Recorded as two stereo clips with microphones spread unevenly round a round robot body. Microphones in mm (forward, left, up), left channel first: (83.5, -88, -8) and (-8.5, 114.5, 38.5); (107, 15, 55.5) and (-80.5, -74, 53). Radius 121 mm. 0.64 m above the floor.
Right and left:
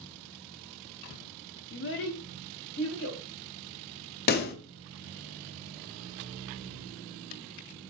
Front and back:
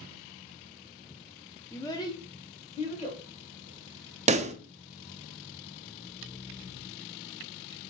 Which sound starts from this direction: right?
A pop, at 4.3 s.